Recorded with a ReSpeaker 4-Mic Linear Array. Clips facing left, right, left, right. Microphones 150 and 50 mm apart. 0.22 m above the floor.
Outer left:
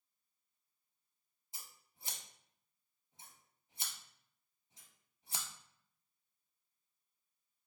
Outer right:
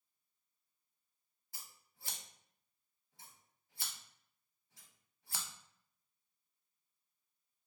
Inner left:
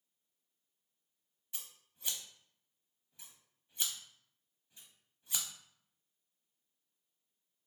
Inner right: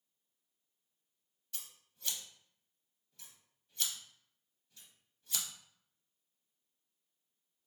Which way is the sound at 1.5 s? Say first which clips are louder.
Outer left 1 dB, inner left 1 dB; 20° left (ahead or behind).